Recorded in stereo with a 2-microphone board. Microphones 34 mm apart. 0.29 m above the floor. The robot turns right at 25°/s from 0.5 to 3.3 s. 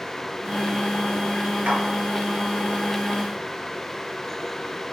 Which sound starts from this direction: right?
A clap, at 1.6 s.